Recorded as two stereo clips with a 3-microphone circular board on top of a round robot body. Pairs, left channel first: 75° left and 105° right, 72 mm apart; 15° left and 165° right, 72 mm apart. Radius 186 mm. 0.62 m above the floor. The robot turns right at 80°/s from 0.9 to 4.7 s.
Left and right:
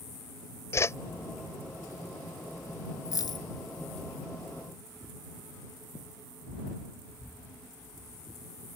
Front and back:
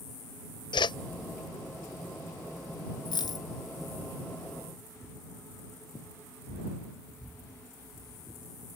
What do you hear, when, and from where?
0.7 s a whoosh: 20° left; by 1.0 s 25° left
3.0 s a dropped coin: 25° left; by 3.5 s 60° left